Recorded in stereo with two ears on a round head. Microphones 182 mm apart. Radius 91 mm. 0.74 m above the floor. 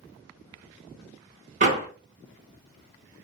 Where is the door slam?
40° right (ahead or behind), 1.2 m.